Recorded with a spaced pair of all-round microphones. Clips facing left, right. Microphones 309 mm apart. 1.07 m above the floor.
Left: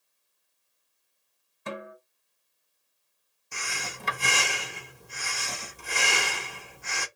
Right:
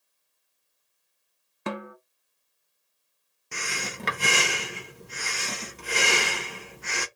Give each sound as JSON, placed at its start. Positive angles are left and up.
{"t": 1.7, "sound": "a snare drum", "side_deg": -65, "distance_m": 0.8}
{"t": 3.5, "sound": "breathing", "side_deg": -65, "distance_m": 1.1}